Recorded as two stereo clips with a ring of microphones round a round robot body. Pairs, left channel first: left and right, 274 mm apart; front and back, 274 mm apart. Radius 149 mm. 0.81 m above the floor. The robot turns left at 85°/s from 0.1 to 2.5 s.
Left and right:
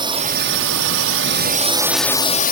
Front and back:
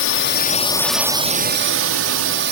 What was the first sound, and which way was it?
A drone, 20° right.